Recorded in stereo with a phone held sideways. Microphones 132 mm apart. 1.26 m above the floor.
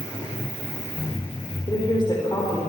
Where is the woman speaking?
35° left (ahead or behind), 4.5 m.